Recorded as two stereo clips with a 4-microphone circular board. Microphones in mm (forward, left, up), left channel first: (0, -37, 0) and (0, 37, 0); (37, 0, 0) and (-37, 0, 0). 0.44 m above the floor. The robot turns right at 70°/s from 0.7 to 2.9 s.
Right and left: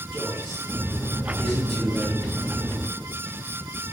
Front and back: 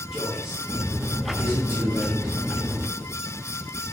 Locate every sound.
0.1 s a man speaking: 115° left, 1.4 m; by 2.3 s 130° right, 1.4 m